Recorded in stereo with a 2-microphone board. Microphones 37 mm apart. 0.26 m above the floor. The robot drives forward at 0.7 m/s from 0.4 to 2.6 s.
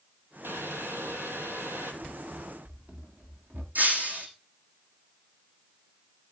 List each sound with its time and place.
0.4 s boiling: 85° right, 3.5 m; by 1.9 s 75° right (ahead or behind), 3.5 m
2.0 s running footsteps: 30° right (ahead or behind), 3.5 m; by 3.6 s 45° right (ahead or behind), 3.5 m
3.8 s breaking glass: 45° right (ahead or behind), 5.5 m